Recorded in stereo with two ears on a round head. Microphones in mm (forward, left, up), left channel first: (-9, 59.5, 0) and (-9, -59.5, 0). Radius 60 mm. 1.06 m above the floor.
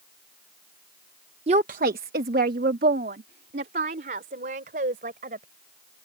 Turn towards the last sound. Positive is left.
turn(degrees=-70)  # may be behind; listen again after turning